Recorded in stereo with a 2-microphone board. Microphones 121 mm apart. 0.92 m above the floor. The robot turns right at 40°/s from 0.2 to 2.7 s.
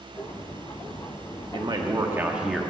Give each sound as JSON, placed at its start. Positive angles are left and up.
{"t": 1.5, "sound": "a man speaking", "azimuth_deg": -40, "distance_m": 1.2}